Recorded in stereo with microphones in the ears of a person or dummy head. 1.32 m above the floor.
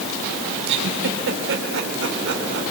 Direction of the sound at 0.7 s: 65° right (ahead or behind).